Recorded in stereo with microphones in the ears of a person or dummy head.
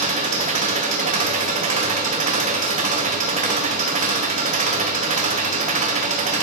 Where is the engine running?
40° right (ahead or behind), 0.8 m.